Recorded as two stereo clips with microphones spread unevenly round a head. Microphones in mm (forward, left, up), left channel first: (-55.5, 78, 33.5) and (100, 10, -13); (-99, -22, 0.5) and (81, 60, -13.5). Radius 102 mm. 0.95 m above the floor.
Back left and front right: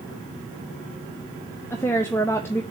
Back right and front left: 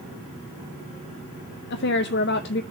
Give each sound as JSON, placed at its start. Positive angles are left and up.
{"t": 1.7, "sound": "a woman speaking", "azimuth_deg": -120, "distance_m": 0.5}